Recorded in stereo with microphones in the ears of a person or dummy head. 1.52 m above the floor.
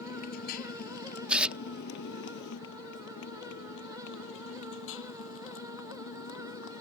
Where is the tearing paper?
5° right (ahead or behind).